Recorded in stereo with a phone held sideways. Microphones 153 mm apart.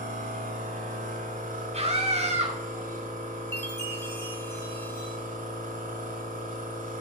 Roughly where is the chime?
Centre.